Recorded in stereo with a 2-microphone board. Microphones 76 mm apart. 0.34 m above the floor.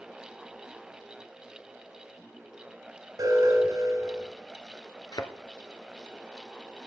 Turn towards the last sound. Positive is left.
turn(degrees=65)  # may be behind; listen again after turning